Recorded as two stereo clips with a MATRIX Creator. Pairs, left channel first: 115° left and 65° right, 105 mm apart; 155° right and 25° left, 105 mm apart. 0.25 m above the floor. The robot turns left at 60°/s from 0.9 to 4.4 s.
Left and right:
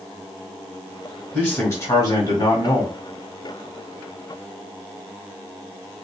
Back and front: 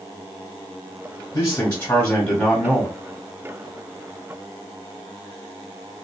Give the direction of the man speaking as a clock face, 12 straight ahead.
6 o'clock.